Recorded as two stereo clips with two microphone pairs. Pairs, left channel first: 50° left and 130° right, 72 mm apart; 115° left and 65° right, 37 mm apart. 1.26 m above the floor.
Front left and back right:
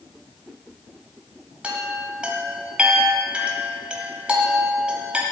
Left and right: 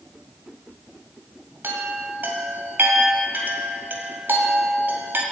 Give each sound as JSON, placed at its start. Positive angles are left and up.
{"t": 1.6, "sound": "a chime", "azimuth_deg": -60, "distance_m": 2.0}